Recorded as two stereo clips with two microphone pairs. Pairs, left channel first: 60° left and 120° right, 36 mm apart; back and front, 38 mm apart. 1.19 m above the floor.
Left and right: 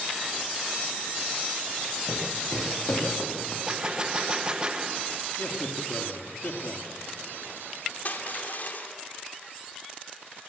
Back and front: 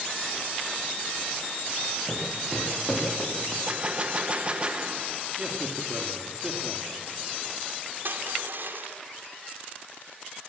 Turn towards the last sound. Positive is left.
turn(degrees=25)